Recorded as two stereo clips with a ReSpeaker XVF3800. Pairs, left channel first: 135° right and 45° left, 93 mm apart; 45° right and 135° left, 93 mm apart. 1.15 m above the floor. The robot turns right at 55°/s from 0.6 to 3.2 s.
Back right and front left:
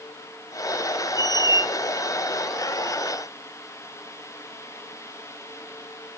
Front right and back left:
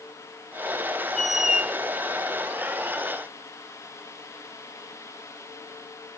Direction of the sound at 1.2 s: 40° left.